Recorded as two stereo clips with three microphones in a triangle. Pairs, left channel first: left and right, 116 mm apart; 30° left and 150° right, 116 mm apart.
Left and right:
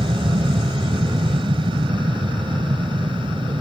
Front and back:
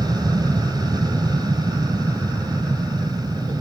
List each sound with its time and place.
0.0 s an aircraft: 110° right